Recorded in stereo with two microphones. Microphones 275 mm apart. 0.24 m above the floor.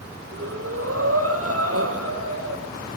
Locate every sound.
0.3 s breathing: 55° right (ahead or behind), 6 m